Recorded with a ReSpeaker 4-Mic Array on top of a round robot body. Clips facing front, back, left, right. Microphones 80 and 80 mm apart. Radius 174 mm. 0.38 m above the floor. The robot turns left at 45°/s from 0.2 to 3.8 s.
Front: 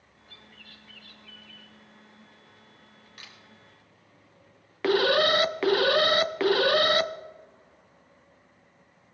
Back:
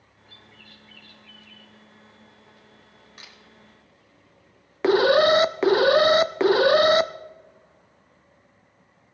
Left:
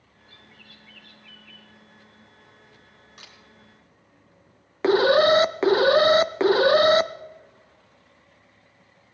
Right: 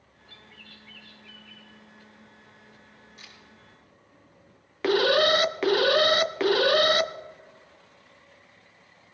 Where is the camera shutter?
115° left, 2.5 m; by 3.4 s 105° left, 2.5 m.